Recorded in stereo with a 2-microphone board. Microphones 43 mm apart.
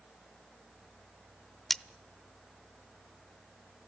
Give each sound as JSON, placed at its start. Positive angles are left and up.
{"t": 1.7, "sound": "cutlery clinking", "side_deg": 5, "distance_m": 0.7}